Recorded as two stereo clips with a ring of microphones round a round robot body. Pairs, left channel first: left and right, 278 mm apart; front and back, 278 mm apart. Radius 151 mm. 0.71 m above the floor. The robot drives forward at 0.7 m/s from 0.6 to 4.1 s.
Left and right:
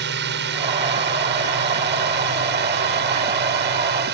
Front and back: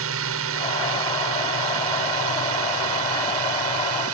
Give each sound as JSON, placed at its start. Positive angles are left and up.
{"t": 0.0, "sound": "a drone", "azimuth_deg": -140}